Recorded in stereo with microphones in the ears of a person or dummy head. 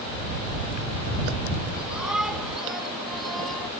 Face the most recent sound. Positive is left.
turn(degrees=5)  # may be behind; listen again after turning